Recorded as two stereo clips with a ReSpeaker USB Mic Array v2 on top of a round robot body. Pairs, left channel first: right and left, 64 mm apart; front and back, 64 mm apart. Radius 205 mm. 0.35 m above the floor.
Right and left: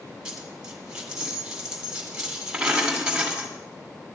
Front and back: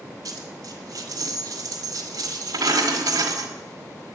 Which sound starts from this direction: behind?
A dropped coin, at 0.2 s.